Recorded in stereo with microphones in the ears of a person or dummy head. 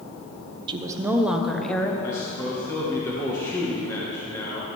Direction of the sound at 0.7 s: 30° right (ahead or behind).